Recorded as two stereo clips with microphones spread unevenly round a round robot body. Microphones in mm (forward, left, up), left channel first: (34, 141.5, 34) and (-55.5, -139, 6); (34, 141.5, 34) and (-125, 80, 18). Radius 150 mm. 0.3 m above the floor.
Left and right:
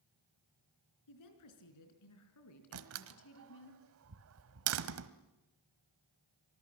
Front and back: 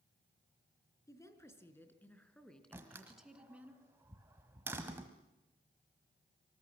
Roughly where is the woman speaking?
Left.